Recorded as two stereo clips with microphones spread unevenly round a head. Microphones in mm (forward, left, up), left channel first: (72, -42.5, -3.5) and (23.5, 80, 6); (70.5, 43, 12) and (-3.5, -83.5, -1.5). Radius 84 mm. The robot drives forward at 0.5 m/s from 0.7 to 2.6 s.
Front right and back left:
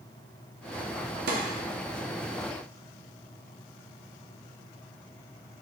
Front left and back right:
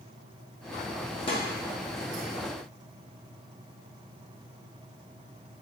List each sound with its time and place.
1.3 s a snare drum: 125° left, 0.7 m; by 1.4 s 130° left, 0.7 m